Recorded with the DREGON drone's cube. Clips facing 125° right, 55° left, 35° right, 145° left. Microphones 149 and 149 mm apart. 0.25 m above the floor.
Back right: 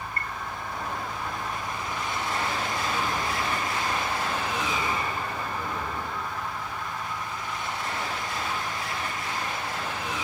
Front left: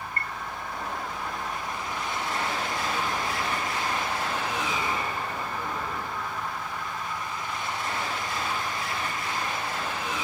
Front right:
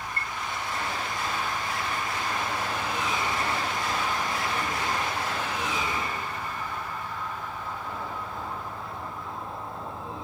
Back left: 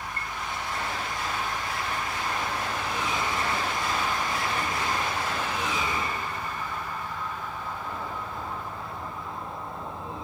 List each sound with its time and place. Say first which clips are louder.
0.2 s a chime: front left 1 dB, front right 1 dB; 75° left, 2.0 m